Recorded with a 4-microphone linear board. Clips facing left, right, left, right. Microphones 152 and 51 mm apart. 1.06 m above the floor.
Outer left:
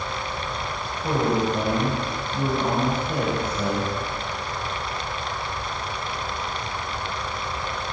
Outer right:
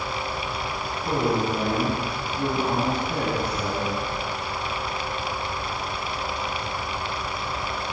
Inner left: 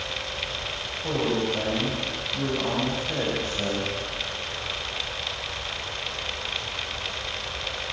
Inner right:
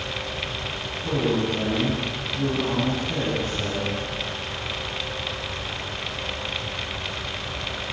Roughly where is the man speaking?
Left.